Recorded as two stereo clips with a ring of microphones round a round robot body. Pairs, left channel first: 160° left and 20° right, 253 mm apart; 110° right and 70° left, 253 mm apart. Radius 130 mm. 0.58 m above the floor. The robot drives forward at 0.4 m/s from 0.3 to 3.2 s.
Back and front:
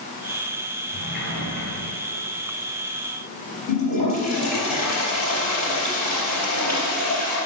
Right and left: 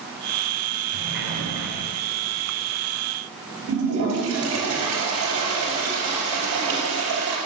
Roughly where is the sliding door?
Left.